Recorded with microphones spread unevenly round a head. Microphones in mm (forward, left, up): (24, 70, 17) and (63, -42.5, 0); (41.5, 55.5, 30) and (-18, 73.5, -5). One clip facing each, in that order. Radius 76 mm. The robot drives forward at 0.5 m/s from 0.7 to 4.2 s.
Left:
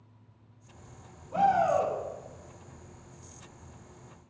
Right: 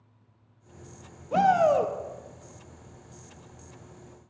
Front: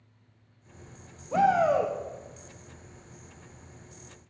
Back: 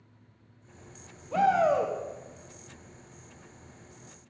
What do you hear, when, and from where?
1.3 s a shout: 75° right, 0.8 m; by 1.9 s 100° right, 0.8 m